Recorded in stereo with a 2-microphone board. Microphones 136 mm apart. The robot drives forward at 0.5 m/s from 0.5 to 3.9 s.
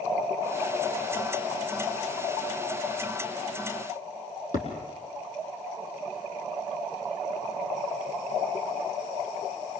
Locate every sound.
4.5 s a thud: 70° left (ahead or behind), 4.5 m